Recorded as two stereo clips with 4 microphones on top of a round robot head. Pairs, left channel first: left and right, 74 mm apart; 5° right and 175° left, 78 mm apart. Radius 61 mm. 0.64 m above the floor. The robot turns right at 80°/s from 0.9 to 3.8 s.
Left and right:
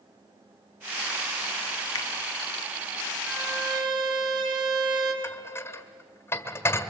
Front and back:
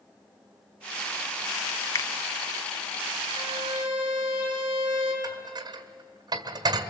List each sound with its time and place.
1.9 s a finger snap: 45° left, 1.1 m; by 2.1 s 55° left, 1.1 m
3.3 s a violin: 150° right, 4 m; by 5.1 s 110° right, 4 m
5.2 s dishes clattering: 145° left, 1.4 m